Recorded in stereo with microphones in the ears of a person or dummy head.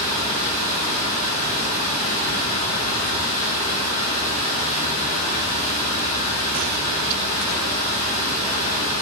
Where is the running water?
35° left (ahead or behind), 0.9 m.